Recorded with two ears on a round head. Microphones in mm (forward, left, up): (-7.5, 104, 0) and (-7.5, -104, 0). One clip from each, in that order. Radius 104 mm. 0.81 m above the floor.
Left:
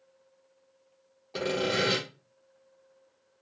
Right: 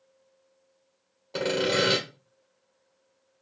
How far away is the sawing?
About 0.9 m.